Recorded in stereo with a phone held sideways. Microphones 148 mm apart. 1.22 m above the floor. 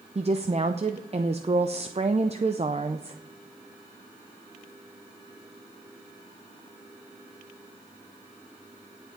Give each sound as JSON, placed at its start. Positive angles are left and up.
{"t": 0.1, "sound": "a woman speaking", "side_deg": -45, "distance_m": 0.5}